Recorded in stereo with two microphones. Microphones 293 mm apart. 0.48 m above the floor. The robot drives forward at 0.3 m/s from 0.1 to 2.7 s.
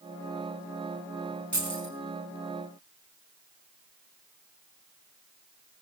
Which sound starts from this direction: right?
Keys jangling, at 1.5 s.